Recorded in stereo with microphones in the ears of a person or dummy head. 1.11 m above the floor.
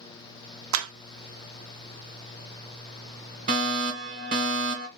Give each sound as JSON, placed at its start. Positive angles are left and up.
{"t": 0.7, "sound": "a clap", "side_deg": -70, "distance_m": 0.6}
{"t": 3.5, "sound": "a fire alarm", "side_deg": -40, "distance_m": 1.8}